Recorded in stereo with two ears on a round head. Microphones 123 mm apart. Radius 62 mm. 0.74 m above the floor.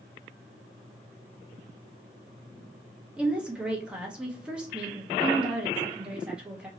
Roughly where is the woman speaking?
Centre.